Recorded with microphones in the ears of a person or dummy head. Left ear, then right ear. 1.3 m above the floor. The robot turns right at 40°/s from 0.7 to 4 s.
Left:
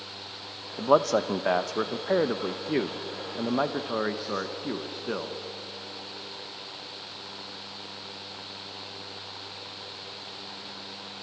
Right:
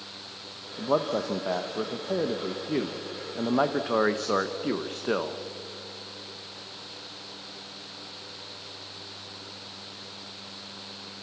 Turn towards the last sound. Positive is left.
turn(degrees=-165)